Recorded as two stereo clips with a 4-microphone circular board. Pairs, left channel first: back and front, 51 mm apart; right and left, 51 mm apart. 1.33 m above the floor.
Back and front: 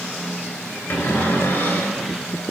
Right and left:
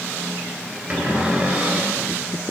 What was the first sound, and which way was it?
A cupboard door, 150° left.